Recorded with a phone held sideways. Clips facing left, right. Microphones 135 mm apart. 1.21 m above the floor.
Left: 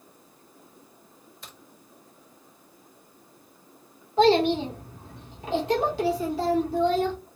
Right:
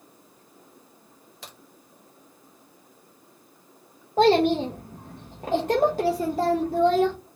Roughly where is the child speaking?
Right.